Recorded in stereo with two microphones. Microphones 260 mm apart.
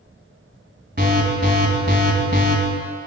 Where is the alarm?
40° right (ahead or behind), 1.2 m.